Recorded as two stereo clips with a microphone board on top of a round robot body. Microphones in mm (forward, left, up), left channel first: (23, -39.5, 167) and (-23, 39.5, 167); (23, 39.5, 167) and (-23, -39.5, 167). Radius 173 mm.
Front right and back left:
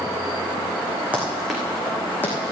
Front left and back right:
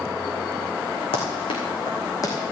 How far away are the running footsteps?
About 2 m.